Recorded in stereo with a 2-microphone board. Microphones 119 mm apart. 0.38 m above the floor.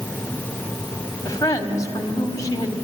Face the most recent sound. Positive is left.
turn(degrees=30)  # may be behind; listen again after turning